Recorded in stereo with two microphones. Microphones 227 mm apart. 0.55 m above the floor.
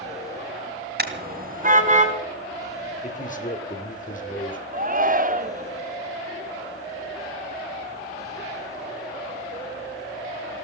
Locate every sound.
1.0 s a car horn: 45° right (ahead or behind), 2.5 m; by 2.1 s 30° right (ahead or behind), 3 m
3.0 s a man speaking: 35° left (ahead or behind), 2 m
4.7 s a shout: 40° right (ahead or behind), 1.3 m